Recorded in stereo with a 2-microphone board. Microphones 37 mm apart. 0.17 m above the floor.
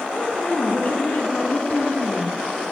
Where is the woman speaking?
45° left (ahead or behind), 1.8 m.